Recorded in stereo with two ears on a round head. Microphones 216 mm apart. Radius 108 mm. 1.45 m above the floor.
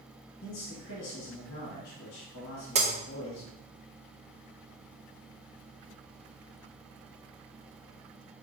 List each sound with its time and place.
0.4 s a man speaking: 50° left (ahead or behind), 1.8 m
2.8 s breaking glass: 25° right (ahead or behind), 0.7 m